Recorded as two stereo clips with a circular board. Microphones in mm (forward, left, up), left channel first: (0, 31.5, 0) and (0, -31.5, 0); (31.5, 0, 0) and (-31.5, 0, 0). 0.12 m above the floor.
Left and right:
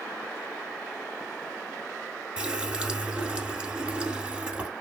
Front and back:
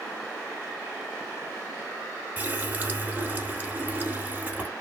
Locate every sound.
2.4 s a running tap: 150° right, 0.8 m